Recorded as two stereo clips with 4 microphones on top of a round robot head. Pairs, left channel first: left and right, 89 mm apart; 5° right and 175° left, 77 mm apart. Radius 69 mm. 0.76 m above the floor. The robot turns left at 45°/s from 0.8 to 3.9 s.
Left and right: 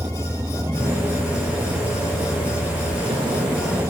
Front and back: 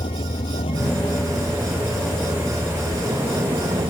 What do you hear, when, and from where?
0.0 s a vehicle: 25° right; by 3.9 s 150° right